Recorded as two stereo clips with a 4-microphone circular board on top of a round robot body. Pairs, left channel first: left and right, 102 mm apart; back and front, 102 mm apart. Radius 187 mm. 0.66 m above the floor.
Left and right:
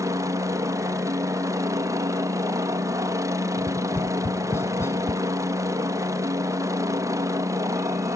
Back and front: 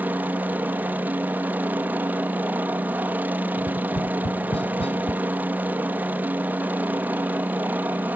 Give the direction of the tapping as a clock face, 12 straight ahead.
7 o'clock.